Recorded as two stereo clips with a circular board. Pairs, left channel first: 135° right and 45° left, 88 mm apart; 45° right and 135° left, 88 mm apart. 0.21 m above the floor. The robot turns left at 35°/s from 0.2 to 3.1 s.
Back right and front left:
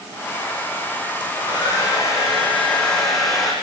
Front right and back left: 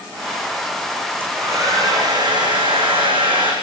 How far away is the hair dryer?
About 8.5 m.